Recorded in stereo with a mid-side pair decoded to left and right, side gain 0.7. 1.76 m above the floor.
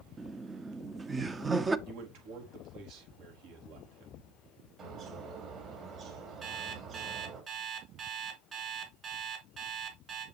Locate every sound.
0.2 s laughter: 20° right, 1.0 m
1.9 s a man speaking: 65° right, 4 m
4.8 s a bird: 40° right, 3.5 m
6.4 s an alarm clock: 35° right, 3.5 m